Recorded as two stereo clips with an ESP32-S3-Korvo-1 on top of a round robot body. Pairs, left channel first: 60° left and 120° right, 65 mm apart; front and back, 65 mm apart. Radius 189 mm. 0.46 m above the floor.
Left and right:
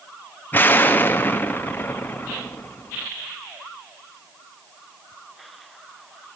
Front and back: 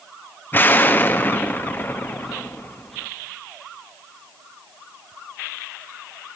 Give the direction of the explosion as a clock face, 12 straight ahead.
11 o'clock.